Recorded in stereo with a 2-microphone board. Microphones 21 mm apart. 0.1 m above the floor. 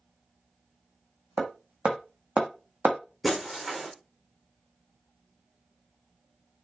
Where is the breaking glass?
5° right (ahead or behind), 3.5 m.